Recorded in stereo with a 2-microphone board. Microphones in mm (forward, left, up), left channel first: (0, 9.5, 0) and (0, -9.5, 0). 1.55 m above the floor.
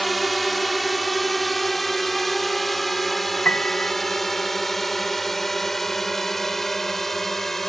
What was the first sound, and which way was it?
A drone, centre (ahead or behind).